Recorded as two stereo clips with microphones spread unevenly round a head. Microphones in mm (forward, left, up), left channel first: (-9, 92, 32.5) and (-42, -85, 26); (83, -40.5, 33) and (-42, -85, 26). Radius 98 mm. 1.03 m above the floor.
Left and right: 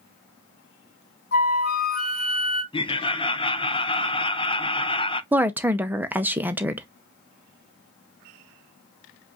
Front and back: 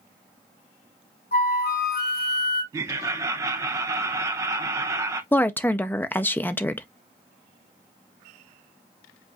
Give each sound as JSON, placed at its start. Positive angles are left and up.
{"t": 1.3, "sound": "a flute", "azimuth_deg": 35, "distance_m": 1.8}
{"t": 2.7, "sound": "laughter", "azimuth_deg": 135, "distance_m": 0.9}
{"t": 5.3, "sound": "a woman speaking", "azimuth_deg": -45, "distance_m": 0.5}